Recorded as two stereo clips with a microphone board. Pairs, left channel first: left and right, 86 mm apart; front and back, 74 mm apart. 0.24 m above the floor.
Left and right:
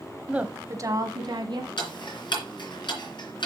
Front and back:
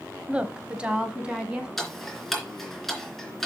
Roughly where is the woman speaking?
Behind right.